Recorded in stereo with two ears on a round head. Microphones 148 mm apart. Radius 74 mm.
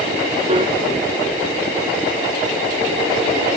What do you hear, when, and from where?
0.5 s a piano: 35° right (ahead or behind)